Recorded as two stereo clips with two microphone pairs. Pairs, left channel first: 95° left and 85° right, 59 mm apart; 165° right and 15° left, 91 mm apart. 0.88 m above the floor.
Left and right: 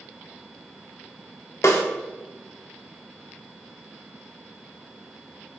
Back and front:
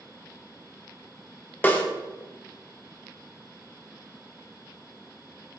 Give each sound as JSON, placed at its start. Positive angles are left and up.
{"t": 1.6, "sound": "a snare drum", "azimuth_deg": 125, "distance_m": 0.8}